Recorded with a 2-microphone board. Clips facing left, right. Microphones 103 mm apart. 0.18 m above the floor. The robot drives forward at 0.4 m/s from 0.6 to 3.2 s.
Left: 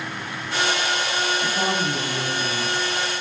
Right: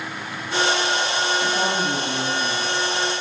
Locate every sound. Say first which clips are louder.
1.4 s a woman speaking: right 1 dB; 25° right (ahead or behind), 2.5 m; by 2.8 s 30° right (ahead or behind), 2 m